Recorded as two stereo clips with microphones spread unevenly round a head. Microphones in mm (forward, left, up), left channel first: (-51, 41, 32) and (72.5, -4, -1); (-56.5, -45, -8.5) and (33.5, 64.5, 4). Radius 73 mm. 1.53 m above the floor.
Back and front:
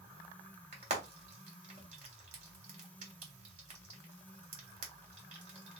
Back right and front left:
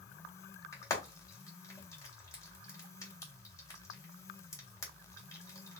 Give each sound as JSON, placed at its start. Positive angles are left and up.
{"t": 0.7, "sound": "frying", "azimuth_deg": -65, "distance_m": 1.5}